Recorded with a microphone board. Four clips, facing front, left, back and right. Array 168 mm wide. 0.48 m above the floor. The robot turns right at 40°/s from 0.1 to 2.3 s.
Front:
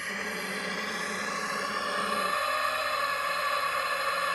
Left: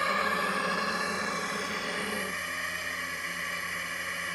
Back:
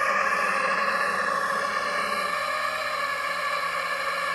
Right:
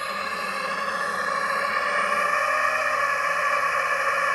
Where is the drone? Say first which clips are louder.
Even, back 12 dB; 175° left; by 4.4 s 95° right.